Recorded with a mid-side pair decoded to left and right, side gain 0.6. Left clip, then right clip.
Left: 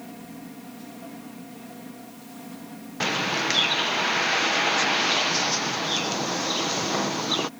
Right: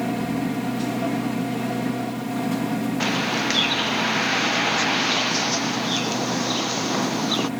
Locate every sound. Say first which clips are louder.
0.0 s a machine running: right 16 dB; 65° right
3.0 s a bird: even; straight ahead